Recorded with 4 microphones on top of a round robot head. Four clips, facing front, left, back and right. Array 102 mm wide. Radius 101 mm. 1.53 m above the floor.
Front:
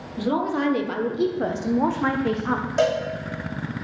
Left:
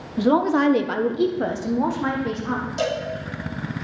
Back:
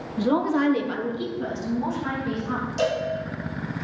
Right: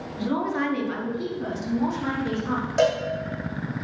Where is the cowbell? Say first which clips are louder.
Right 5 dB, front 3 dB; 35° right, 3 m.